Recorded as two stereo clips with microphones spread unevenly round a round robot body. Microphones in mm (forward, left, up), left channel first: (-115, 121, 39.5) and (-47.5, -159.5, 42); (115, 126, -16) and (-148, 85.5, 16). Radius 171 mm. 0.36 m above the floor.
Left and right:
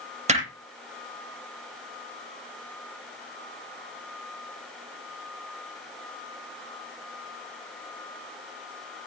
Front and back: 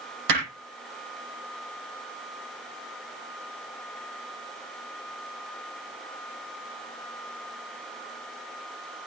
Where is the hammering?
145° right, 8 m.